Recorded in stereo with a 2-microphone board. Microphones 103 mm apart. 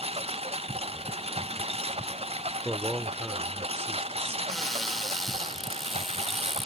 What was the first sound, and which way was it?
A lawn mower, 70° right (ahead or behind).